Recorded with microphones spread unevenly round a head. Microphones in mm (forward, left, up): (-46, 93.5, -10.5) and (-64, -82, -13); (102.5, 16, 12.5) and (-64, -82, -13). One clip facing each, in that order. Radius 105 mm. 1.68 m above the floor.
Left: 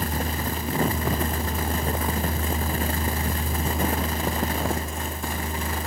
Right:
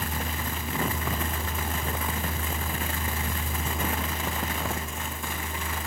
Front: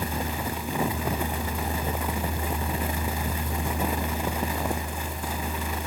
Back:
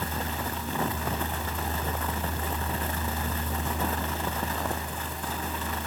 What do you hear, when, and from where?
Only background noise.